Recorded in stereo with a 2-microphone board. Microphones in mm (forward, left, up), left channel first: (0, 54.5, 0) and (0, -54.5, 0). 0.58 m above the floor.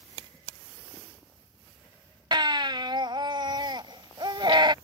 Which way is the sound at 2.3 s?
45° right (ahead or behind).